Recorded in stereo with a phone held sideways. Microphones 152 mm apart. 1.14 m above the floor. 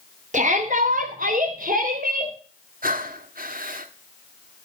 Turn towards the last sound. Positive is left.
turn(degrees=-70)  # may be behind; listen again after turning